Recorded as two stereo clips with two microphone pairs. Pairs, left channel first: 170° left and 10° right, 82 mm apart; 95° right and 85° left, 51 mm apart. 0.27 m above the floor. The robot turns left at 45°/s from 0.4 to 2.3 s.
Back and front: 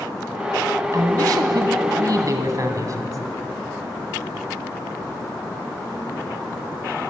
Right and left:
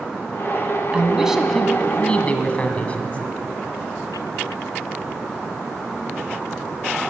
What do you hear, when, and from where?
0.9 s a man speaking: 20° left, 1.7 m; by 3.2 s 40° right, 1.7 m